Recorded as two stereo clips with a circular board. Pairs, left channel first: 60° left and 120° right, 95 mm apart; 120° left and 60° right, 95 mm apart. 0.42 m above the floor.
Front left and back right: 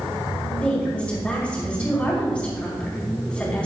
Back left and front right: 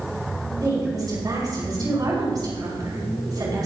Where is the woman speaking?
15° right, 4.5 m.